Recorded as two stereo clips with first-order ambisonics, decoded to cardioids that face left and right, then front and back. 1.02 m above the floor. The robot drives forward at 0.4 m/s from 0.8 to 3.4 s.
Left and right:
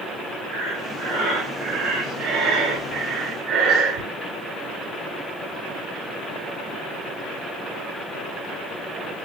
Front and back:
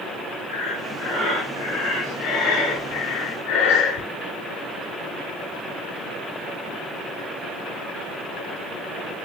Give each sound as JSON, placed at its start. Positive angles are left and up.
{"t": 0.5, "sound": "breathing", "azimuth_deg": -30, "distance_m": 7.5}